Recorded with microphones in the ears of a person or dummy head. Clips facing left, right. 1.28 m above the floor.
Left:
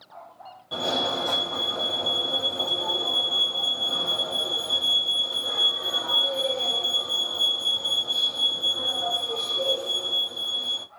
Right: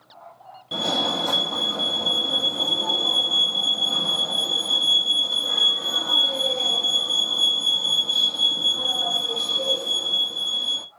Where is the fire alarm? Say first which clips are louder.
Right 1 dB; 25° right (ahead or behind), 0.9 m.